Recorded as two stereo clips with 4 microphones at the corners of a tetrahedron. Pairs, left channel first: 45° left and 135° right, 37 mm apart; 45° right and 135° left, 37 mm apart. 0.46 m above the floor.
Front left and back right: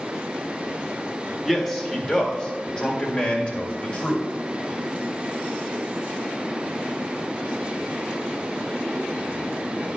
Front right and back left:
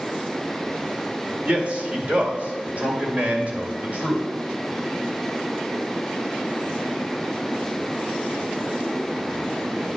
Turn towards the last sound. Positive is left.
turn(degrees=90)